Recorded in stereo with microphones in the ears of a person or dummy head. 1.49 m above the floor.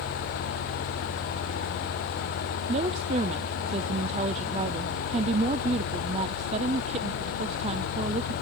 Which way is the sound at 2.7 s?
35° right (ahead or behind).